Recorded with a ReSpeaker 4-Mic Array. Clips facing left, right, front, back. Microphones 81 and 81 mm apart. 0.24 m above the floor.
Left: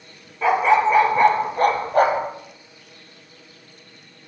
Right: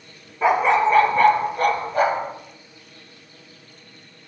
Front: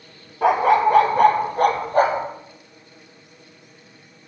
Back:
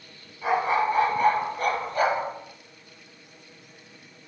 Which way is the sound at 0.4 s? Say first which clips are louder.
Left 1 dB, front 7 dB; 10° right.